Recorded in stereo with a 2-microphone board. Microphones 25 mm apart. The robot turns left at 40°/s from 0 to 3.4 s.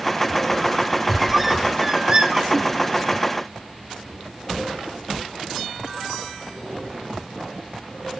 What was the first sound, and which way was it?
A squeak, 5° right (ahead or behind).